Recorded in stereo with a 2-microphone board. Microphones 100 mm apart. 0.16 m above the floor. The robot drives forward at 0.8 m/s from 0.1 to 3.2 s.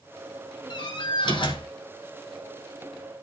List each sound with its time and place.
0.7 s a door slam: 50° left (ahead or behind), 1.8 m; by 1.7 s 60° left (ahead or behind), 1.6 m